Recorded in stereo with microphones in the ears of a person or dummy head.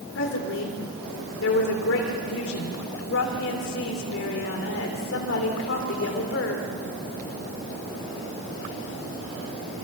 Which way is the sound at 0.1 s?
70° left (ahead or behind).